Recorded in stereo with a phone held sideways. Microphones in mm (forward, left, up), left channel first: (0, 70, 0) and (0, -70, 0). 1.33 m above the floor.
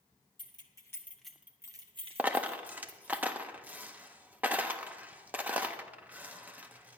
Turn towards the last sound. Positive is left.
turn(degrees=-10)  # may be behind; listen again after turning